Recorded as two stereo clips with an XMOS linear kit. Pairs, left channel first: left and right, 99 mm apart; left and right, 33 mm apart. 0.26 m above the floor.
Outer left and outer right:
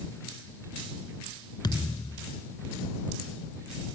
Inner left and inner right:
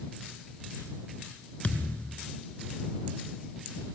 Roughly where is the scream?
No scream in this recording.